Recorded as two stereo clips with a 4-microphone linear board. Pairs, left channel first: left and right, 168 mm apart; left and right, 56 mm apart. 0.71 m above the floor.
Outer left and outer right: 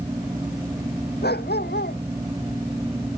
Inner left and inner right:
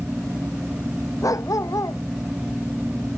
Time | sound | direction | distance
1.2 | a dog barking | 75° left (ahead or behind) | ?